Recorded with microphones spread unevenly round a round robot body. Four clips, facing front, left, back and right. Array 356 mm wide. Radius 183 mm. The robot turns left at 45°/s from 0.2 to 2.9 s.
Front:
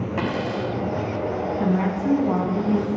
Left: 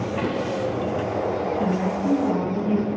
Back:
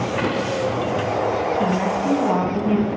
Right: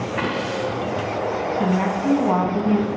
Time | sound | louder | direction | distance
0.2 | a dropped coin | right 1 dB, back 1 dB | 5° right | 3.5 m
1.6 | a woman speaking | right 2 dB, back 2 dB | 60° right | 4 m